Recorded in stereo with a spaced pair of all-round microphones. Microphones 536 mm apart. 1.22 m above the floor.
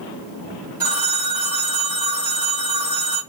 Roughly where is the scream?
No scream in this recording.